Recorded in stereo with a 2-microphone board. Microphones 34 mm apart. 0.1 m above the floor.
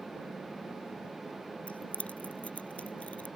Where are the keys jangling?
50° left (ahead or behind).